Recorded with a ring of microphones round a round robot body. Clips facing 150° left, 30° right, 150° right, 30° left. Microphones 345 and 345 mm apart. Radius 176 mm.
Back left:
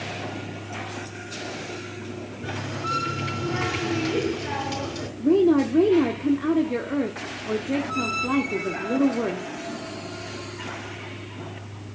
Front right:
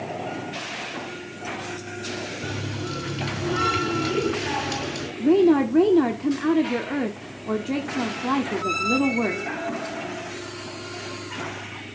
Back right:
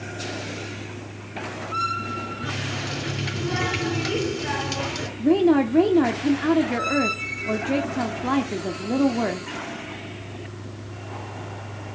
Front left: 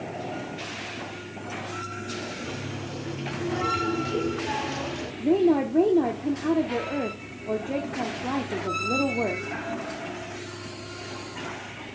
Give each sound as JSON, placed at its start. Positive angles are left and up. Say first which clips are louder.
{"t": 2.4, "sound": "a running tap", "louder": "even, back right 2 dB", "azimuth_deg": -110, "distance_m": 4.0}
{"t": 5.2, "sound": "a woman speaking", "louder": "front right 1 dB, back right 3 dB", "azimuth_deg": -110, "distance_m": 1.0}